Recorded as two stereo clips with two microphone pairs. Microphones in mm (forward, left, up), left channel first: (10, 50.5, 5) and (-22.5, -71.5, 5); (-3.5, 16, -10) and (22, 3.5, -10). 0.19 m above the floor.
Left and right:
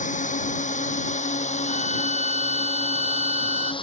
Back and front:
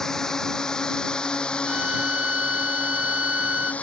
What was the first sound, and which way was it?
A drone, 80° left.